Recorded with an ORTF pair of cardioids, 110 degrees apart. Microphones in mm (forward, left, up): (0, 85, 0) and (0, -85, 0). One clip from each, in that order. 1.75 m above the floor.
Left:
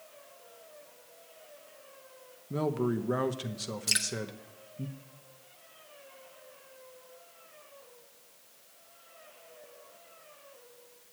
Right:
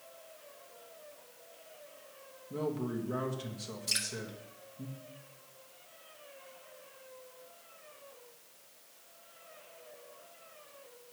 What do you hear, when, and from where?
2.5 s a man speaking: 40° left, 1.1 m
3.9 s dripping: 35° left, 1.4 m